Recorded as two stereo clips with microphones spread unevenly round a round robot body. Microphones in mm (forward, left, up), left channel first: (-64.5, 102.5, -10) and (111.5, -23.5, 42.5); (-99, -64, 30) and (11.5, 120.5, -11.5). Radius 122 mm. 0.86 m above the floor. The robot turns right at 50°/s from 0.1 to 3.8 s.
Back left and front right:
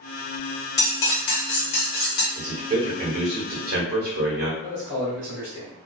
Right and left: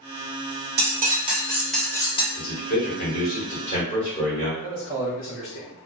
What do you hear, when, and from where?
0.8 s cutlery clinking: 100° left, 0.9 m; by 2.2 s 175° left, 0.9 m
2.4 s a man speaking: 125° right, 1.1 m; by 4.5 s 55° right, 1.1 m
4.6 s a man speaking: 125° right, 1.0 m